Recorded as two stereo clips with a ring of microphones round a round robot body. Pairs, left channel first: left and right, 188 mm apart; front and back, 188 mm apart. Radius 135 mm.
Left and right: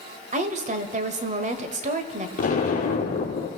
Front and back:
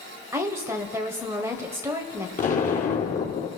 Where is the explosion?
45° left, 3.5 m.